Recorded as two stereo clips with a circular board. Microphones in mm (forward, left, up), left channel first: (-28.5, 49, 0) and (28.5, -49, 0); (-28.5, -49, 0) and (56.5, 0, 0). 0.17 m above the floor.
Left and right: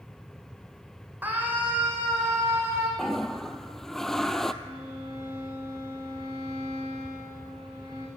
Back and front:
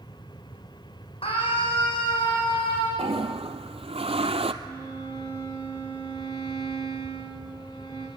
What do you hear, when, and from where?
1.2 s a scream: 135° right, 8.5 m; by 2.9 s 125° right, 8.5 m
3.0 s a toilet flushing: 35° left, 1.0 m
4.6 s a violin: 110° right, 8.5 m